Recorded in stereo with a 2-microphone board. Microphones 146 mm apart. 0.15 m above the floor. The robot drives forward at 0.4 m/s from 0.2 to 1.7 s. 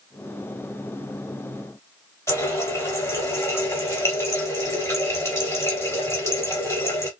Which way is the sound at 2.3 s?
15° left (ahead or behind).